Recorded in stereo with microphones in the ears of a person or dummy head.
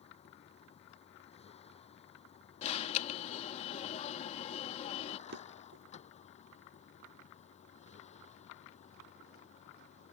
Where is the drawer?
50° right (ahead or behind).